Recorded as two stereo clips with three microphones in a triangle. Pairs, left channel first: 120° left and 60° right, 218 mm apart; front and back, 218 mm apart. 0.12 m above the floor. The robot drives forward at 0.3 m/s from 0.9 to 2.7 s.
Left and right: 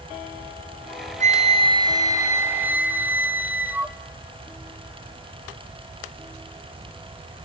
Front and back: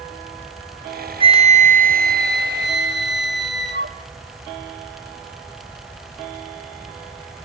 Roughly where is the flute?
Behind right.